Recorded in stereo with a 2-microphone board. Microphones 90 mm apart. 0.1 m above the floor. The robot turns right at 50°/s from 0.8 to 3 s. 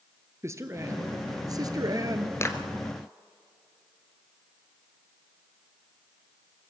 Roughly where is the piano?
I don't hear a piano.